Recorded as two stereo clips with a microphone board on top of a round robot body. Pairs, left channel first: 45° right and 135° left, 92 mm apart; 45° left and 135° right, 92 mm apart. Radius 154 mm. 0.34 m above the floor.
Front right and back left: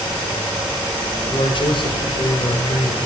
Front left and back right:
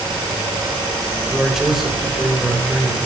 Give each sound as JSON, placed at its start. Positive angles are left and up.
{"t": 1.3, "sound": "a man speaking", "azimuth_deg": -50, "distance_m": 2.5}